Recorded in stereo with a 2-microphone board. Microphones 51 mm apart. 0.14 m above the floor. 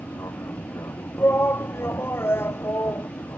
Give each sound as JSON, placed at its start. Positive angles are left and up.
{"t": 0.0, "sound": "an aircraft", "side_deg": 70}
{"t": 1.2, "sound": "a shout", "side_deg": 50}